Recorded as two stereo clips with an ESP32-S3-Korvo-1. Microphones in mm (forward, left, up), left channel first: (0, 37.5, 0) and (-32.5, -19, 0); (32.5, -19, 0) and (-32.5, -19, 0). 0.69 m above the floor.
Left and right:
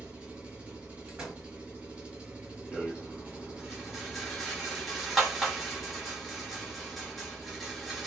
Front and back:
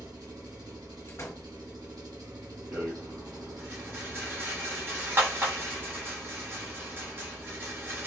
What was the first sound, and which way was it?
An engine running, 170° left.